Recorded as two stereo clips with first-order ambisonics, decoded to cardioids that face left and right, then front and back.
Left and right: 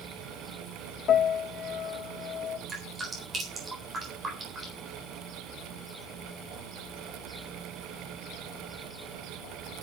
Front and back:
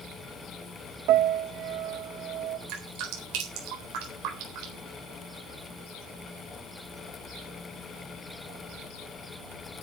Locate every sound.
1.1 s a piano: 145° left, 1.1 m
2.7 s dripping: 165° right, 4 m